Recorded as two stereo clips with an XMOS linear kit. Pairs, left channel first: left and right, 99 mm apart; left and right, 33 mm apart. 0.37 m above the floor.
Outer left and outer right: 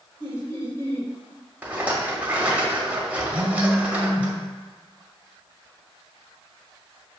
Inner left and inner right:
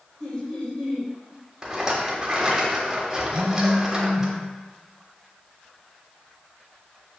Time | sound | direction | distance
0.2 | laughter | 25° left (ahead or behind) | 1.1 m
1.6 | a rattle | 15° right (ahead or behind) | 0.7 m
3.3 | a phone buzzing | 10° left (ahead or behind) | 1.8 m